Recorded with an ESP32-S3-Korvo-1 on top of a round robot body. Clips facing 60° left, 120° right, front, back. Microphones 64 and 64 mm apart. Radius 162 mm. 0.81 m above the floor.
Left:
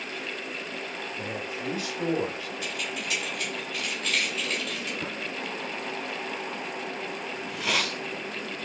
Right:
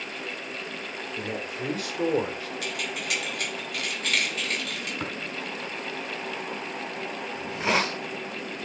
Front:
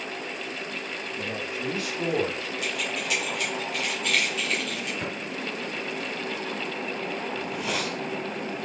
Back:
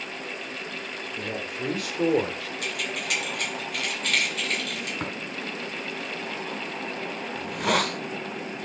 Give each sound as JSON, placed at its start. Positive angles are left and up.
{"t": 1.2, "sound": "a man speaking", "azimuth_deg": -145, "distance_m": 4.0}
{"t": 2.6, "sound": "keys jangling", "azimuth_deg": -145, "distance_m": 4.0}
{"t": 5.0, "sound": "tapping", "azimuth_deg": -160, "distance_m": 4.5}
{"t": 7.3, "sound": "a hiss", "azimuth_deg": -175, "distance_m": 0.7}